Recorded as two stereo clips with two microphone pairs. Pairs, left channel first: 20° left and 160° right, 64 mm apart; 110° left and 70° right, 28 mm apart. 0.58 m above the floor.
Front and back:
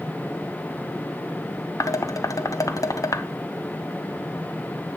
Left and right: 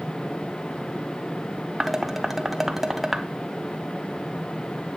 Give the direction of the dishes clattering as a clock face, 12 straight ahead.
12 o'clock.